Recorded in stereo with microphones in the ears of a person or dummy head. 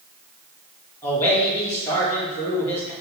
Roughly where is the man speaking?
Centre.